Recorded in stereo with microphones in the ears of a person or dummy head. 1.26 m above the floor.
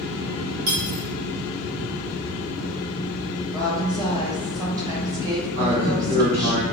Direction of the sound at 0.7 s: 70° right (ahead or behind).